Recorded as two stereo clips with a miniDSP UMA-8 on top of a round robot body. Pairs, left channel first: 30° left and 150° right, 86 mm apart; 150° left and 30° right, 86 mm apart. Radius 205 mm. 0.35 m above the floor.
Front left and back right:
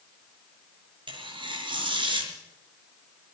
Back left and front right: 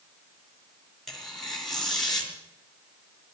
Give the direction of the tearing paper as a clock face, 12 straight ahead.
4 o'clock.